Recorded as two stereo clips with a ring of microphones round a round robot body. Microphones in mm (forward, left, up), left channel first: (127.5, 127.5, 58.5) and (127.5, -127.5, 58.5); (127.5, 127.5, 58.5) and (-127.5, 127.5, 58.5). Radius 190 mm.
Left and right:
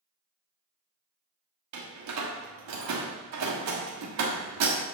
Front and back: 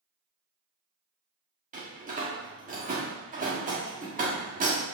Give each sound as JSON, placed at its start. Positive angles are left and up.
{"t": 1.7, "sound": "a door slam", "azimuth_deg": -115, "distance_m": 1.2}